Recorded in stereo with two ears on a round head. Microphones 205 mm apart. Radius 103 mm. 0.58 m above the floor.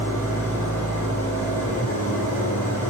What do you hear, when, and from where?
0.0 s an engine running: 10° left (ahead or behind), 6.5 m